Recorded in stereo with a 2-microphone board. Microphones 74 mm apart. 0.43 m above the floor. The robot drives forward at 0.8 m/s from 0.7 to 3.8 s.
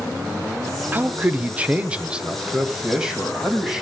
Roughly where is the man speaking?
Right.